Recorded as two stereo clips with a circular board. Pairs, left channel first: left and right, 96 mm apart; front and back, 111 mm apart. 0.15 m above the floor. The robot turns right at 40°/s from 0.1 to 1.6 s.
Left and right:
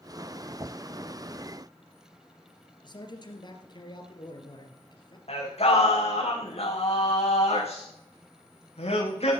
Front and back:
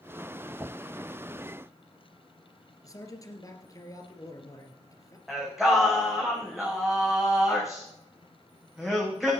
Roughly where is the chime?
No chime in this recording.